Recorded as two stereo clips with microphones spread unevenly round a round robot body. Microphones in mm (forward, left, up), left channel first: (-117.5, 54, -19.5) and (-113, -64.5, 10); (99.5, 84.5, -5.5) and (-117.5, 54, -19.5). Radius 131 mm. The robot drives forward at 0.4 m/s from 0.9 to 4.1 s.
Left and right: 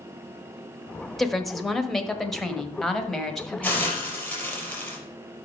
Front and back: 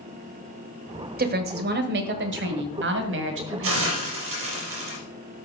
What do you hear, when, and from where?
1.2 s a woman speaking: 165° left, 1.2 m; by 4.1 s 175° left, 2 m
3.6 s a hiss: 170° left, 5 m